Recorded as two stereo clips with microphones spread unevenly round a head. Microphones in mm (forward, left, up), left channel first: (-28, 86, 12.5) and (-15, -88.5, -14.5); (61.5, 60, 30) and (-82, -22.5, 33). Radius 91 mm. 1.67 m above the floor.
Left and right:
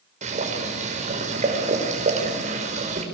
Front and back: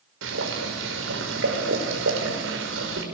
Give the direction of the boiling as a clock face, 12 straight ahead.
5 o'clock.